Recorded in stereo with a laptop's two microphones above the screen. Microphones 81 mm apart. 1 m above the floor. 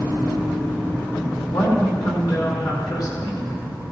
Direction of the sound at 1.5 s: 50° left (ahead or behind).